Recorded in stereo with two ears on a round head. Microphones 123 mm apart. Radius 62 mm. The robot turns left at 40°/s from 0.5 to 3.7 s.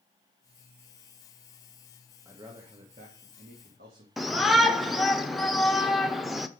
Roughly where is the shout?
Centre.